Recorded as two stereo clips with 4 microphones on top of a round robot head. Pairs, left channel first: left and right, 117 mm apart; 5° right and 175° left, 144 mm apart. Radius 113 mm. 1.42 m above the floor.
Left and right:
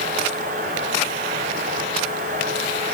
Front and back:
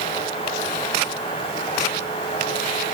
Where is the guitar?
No guitar in this recording.